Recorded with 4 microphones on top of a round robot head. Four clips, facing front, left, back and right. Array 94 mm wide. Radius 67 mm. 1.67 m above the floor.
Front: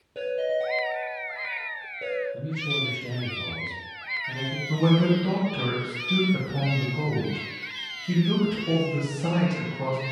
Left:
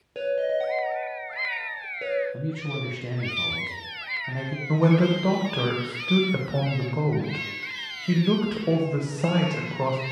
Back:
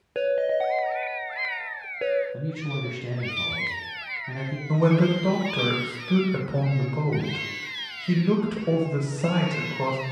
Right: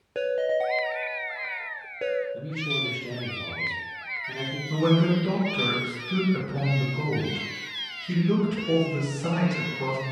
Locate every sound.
0.1 s a ringtone: 155° right, 0.6 m
2.3 s a man speaking: 120° left, 1.6 m
4.7 s a man speaking: 110° left, 1.4 m